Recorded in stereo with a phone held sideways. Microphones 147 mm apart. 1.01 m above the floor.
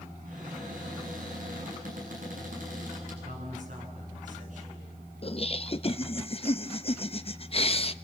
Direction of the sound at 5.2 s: 40° left (ahead or behind).